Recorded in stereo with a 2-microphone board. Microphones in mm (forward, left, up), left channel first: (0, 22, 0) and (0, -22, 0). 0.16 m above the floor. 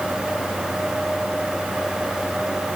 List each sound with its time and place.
Only background noise.